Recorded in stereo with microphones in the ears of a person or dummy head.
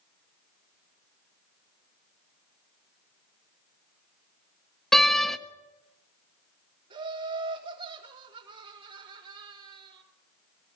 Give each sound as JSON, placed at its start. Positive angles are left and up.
{"t": 4.9, "sound": "a door slam", "side_deg": 5, "distance_m": 1.4}
{"t": 6.9, "sound": "laughter", "side_deg": -35, "distance_m": 4.5}